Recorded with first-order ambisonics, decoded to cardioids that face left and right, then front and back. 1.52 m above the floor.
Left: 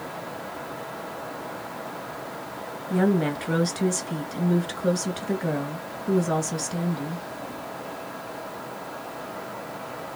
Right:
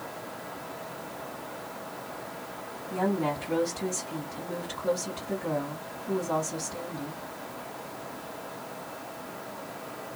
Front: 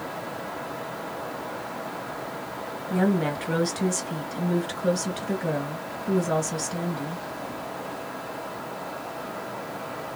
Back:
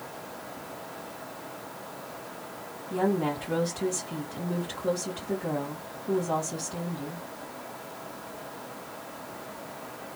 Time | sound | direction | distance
2.9 | a woman speaking | 50° left | 1.7 m